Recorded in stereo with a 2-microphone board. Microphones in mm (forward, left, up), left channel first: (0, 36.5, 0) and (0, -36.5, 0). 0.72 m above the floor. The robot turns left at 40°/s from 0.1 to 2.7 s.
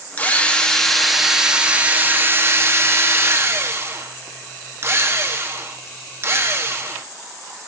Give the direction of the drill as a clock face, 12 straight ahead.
11 o'clock.